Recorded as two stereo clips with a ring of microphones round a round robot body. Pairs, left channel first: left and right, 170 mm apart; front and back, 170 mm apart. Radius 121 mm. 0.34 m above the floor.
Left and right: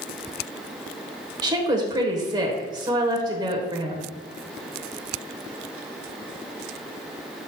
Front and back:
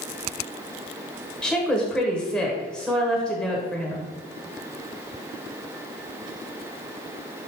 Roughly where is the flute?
I don't hear a flute.